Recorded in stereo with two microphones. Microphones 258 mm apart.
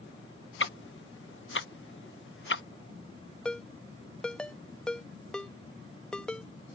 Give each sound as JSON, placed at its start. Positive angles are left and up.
{"t": 0.6, "sound": "ticking", "side_deg": 50}
{"t": 3.5, "sound": "a ringtone", "side_deg": 5}